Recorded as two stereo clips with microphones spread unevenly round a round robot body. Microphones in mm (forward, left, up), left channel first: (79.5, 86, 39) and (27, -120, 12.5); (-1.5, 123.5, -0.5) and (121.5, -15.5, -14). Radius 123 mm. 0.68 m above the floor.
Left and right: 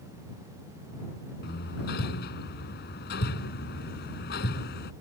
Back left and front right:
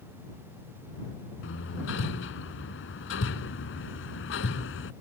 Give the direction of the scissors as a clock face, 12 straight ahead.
No scissors in this recording.